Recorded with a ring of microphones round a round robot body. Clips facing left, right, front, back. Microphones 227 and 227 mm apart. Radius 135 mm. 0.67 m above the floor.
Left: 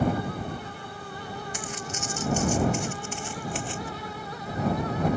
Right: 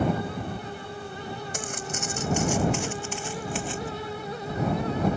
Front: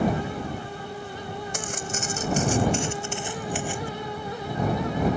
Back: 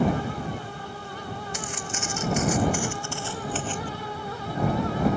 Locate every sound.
1.5 s footsteps: 45° right; by 3.9 s 80° right